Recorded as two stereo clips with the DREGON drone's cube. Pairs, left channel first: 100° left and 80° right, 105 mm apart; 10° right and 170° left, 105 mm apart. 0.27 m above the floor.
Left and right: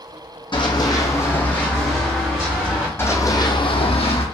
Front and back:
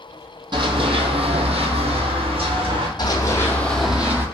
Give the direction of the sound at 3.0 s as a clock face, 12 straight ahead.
11 o'clock.